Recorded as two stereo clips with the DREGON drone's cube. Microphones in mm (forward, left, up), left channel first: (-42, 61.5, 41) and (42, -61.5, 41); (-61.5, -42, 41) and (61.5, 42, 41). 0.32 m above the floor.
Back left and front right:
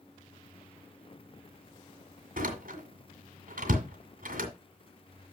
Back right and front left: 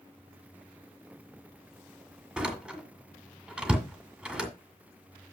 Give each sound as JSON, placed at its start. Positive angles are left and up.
{"t": 2.4, "sound": "a door slam", "azimuth_deg": -50, "distance_m": 2.0}